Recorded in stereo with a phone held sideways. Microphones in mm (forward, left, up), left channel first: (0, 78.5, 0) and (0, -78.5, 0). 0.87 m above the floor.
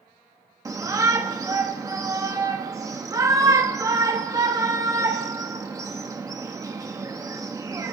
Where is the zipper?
I don't hear a zipper.